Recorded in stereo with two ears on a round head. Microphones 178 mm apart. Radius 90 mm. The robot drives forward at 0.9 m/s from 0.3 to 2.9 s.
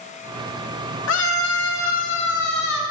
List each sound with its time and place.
1.1 s a scream: 70° left (ahead or behind), 2.5 m; by 2.8 s 55° left (ahead or behind), 2.5 m